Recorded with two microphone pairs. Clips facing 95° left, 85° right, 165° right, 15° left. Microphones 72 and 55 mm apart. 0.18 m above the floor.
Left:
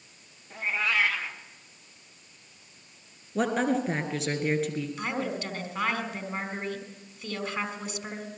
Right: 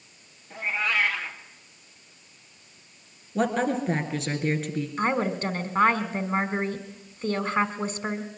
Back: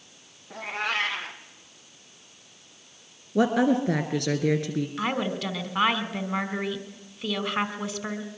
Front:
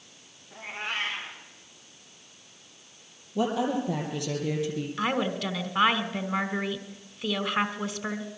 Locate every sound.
0.5 s a cat meowing: 175° right, 3 m
3.4 s a woman speaking: 175° right, 2.5 m
5.0 s a woman speaking: 80° right, 1.7 m